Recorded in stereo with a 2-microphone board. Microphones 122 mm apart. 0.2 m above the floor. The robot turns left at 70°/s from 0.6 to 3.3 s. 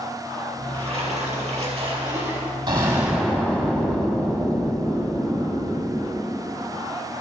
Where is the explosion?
140° right, 2.0 m; by 6.2 s 175° left, 2.0 m.